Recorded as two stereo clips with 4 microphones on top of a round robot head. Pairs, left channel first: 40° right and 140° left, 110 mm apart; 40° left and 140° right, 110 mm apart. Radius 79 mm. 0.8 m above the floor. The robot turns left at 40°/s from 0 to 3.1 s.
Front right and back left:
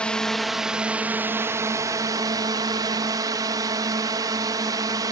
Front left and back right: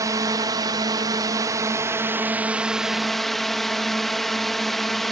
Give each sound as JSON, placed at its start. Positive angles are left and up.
{"t": 0.0, "sound": "a drone", "azimuth_deg": -110}